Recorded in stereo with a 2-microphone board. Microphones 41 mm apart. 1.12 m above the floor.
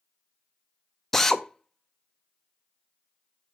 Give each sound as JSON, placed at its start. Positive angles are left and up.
{"t": 1.1, "sound": "a drill", "side_deg": 5, "distance_m": 0.6}